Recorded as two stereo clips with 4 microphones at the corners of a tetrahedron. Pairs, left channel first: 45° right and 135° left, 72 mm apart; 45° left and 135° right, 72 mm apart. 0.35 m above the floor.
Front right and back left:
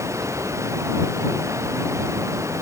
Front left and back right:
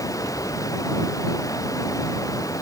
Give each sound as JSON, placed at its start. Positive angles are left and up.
{"t": 0.0, "sound": "running water", "azimuth_deg": 85}